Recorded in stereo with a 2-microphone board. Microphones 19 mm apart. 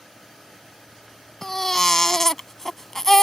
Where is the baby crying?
25° left (ahead or behind).